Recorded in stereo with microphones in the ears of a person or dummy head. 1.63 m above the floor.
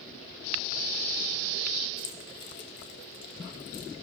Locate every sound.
2.0 s keys jangling: 60° left (ahead or behind), 1.1 m